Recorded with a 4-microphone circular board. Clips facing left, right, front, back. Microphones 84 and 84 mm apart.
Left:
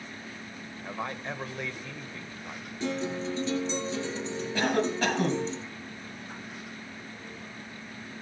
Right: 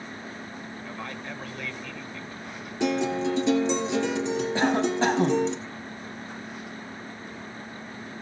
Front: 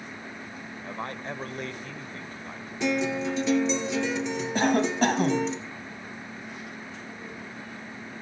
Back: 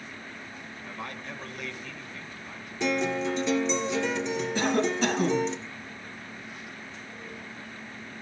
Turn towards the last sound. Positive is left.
turn(degrees=-30)